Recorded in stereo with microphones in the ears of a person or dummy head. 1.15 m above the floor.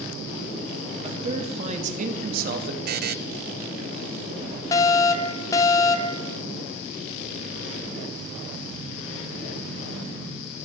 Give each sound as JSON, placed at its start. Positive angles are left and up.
{"t": 1.0, "sound": "a man speaking", "side_deg": -30, "distance_m": 2.5}
{"t": 2.9, "sound": "a buzzer", "side_deg": -50, "distance_m": 0.6}
{"t": 4.7, "sound": "a fire alarm", "side_deg": 15, "distance_m": 1.2}